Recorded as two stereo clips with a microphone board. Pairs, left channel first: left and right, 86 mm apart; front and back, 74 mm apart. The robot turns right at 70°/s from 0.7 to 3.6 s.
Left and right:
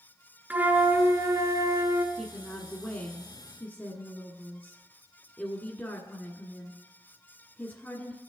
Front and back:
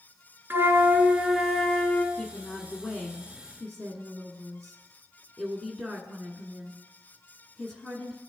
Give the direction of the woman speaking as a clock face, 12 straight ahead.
1 o'clock.